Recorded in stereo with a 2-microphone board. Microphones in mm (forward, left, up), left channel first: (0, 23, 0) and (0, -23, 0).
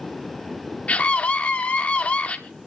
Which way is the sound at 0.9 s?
30° left (ahead or behind).